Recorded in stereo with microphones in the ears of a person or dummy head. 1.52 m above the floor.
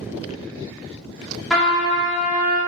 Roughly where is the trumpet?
Centre.